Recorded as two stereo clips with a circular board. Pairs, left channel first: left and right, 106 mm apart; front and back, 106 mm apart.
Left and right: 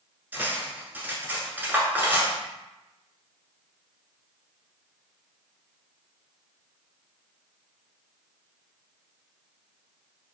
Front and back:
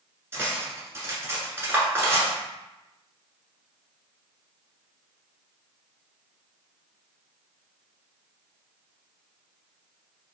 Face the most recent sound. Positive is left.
turn(degrees=-145)